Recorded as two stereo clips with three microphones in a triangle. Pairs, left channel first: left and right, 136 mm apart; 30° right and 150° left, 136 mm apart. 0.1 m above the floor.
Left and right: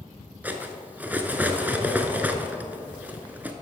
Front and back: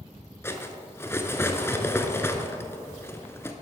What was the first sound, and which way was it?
Cutlery clinking, 40° right.